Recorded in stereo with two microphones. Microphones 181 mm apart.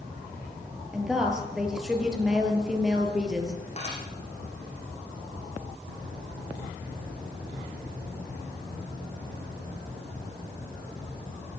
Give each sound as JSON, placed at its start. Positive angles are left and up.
{"t": 0.9, "sound": "a woman speaking", "side_deg": -5, "distance_m": 5.0}
{"t": 3.8, "sound": "dishes clattering", "side_deg": 40, "distance_m": 9.5}